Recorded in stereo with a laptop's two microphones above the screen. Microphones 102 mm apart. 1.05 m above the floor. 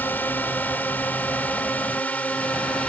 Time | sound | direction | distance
0.0 | a drone | 20° left (ahead or behind) | ?